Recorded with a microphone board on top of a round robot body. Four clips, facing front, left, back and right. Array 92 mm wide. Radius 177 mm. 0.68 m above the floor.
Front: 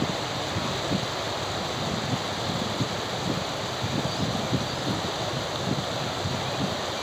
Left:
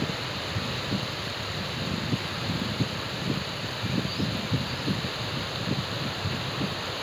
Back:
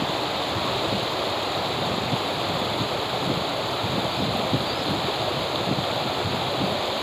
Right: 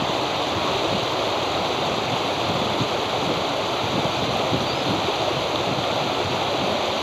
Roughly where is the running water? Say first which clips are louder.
Right 10 dB, back 3 dB; right.